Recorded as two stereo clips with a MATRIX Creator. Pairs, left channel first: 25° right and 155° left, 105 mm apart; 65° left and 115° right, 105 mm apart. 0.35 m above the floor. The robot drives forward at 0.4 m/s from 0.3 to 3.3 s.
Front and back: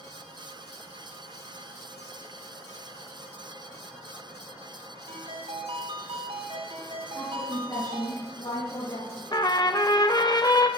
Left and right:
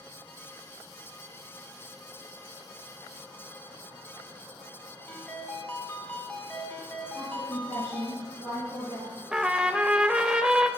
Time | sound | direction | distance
5.1 | a ringtone | 145° left | 2 m
7.2 | a woman speaking | 55° right | 4.5 m
9.3 | a trumpet | 35° right | 0.7 m